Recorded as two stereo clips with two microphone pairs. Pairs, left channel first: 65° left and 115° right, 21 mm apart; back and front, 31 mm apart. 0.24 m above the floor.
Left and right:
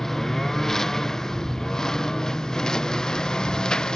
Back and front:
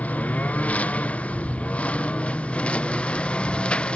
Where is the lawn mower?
140° left; by 4.0 s 125° left.